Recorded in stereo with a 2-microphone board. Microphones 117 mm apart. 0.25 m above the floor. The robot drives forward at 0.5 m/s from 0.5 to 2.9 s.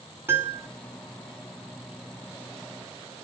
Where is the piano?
20° right (ahead or behind), 1.2 m.